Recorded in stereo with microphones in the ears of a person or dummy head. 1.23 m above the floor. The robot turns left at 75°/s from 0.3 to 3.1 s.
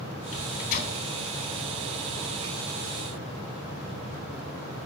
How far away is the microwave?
About 3.5 m.